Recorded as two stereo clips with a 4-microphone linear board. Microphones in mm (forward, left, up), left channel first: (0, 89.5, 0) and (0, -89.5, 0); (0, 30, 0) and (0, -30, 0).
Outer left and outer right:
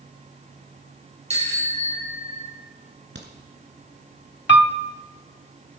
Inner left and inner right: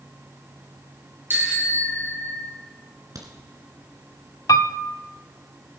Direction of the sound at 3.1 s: 70° right (ahead or behind).